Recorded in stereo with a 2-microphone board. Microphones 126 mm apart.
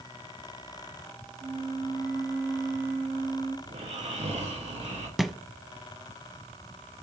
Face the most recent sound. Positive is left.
turn(degrees=0)  # may be behind; listen again after turning